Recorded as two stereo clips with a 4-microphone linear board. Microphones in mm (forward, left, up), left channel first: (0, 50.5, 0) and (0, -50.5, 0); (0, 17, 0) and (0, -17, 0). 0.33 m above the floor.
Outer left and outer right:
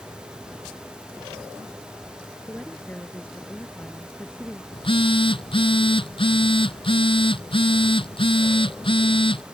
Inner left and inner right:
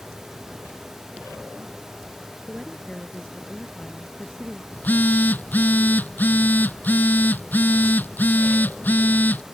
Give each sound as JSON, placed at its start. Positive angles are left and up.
{"t": 2.5, "sound": "a woman speaking", "side_deg": 15}
{"t": 4.7, "sound": "a phone buzzing", "side_deg": 60}